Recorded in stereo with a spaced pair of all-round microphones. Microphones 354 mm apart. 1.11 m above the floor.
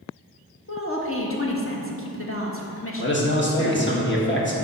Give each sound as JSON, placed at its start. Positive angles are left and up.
{"t": 0.7, "sound": "a woman speaking", "side_deg": 40, "distance_m": 1.4}
{"t": 3.0, "sound": "a man speaking", "side_deg": 30, "distance_m": 1.5}